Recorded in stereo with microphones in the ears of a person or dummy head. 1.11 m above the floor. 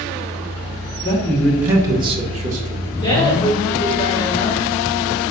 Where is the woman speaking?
20° left (ahead or behind), 1.5 m.